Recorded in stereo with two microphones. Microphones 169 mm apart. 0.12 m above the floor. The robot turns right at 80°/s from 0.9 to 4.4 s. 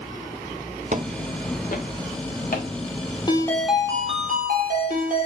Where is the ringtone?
150° left, 1.9 m; by 5.3 s 120° right, 1.9 m.